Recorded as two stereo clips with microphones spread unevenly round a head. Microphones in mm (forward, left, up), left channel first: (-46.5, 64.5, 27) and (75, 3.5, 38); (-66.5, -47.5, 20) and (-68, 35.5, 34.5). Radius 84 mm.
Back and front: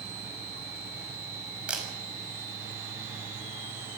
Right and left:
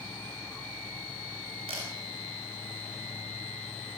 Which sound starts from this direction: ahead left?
A camera shutter, at 1.7 s.